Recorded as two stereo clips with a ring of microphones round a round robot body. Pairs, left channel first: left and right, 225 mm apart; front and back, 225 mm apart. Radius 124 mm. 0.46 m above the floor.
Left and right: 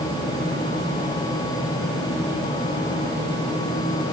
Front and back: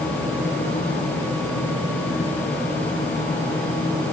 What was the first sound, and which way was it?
Only background noise.